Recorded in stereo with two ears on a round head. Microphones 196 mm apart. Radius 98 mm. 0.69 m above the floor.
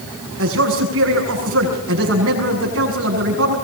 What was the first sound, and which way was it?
A man speaking, 65° right (ahead or behind).